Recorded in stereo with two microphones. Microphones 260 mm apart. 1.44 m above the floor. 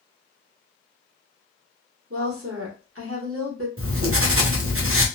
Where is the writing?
55° right (ahead or behind), 0.6 m.